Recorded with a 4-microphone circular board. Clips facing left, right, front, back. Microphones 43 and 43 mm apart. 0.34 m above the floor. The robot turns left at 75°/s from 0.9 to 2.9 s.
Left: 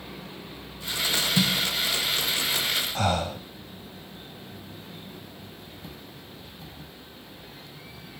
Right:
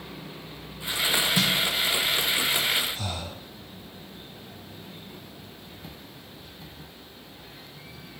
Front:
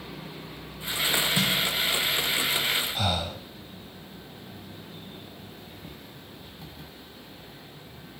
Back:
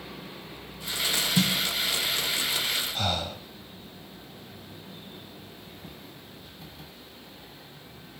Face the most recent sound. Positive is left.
turn(degrees=85)